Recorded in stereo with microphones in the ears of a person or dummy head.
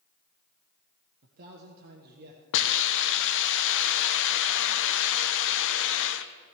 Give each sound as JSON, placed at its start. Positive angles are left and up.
{"t": 1.2, "sound": "a man speaking", "side_deg": -50, "distance_m": 1.4}
{"t": 2.5, "sound": "a hiss", "side_deg": 65, "distance_m": 0.7}